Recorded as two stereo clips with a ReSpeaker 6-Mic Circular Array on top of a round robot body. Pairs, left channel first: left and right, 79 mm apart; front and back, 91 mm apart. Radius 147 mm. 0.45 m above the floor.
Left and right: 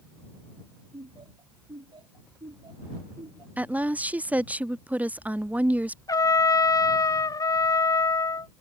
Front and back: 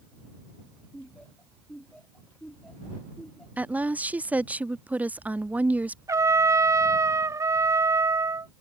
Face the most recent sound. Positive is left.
turn(degrees=130)